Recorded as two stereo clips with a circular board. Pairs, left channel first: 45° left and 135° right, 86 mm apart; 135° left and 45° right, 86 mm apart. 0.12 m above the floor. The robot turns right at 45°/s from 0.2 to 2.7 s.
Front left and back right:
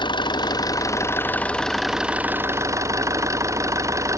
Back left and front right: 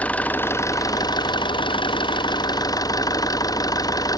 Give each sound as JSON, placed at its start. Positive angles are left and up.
{"t": 0.0, "sound": "an engine running", "azimuth_deg": 60}